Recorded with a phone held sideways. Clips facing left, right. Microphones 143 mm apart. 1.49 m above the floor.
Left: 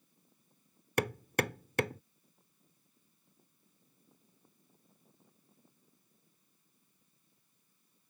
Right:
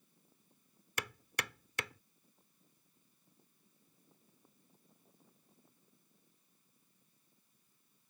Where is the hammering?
50° left (ahead or behind).